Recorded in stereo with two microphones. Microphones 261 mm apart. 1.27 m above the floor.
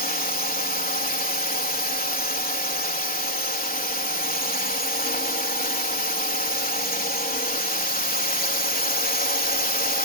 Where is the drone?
35° left (ahead or behind).